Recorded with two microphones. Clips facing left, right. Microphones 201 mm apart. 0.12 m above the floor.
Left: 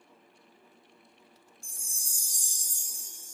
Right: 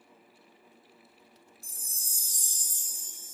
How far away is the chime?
About 0.8 m.